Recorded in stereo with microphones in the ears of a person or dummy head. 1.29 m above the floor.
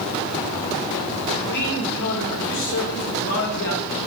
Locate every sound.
1.5 s a man speaking: 75° left (ahead or behind), 6 m